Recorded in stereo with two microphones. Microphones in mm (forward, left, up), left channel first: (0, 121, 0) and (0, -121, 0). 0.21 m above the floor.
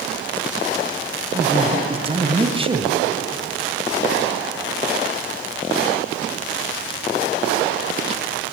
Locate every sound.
1.3 s a man speaking: 20° right (ahead or behind), 1.7 m